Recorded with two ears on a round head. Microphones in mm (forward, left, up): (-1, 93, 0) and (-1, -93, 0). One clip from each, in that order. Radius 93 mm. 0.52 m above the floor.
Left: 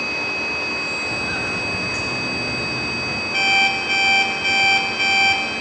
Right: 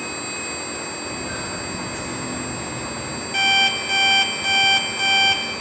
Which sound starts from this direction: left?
Footsteps, at 1.0 s.